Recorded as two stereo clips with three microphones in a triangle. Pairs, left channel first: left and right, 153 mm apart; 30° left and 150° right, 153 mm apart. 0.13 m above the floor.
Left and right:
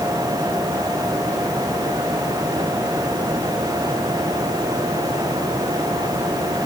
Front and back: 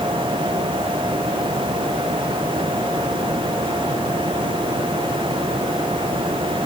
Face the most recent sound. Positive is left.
No sound to turn to.